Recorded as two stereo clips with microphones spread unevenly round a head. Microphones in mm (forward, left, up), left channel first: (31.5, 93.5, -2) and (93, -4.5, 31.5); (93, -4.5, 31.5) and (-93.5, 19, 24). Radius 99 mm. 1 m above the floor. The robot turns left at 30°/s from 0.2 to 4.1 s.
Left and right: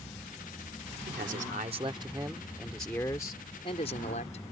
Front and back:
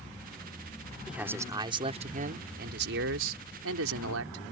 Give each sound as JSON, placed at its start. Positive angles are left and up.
{"t": 1.1, "sound": "a man speaking", "azimuth_deg": -100}